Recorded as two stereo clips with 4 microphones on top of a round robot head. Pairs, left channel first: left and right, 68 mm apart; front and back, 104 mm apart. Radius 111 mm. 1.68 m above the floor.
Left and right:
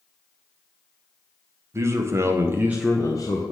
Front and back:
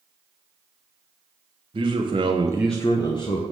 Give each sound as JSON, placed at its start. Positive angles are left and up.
{"t": 1.7, "sound": "a man speaking", "azimuth_deg": -135, "distance_m": 1.3}